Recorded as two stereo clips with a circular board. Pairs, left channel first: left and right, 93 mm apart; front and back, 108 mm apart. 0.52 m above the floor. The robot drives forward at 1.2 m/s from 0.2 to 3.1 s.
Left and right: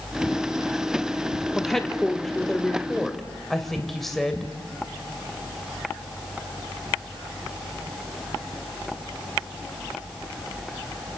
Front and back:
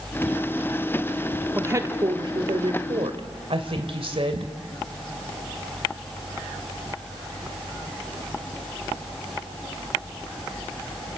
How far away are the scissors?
No scissors in this recording.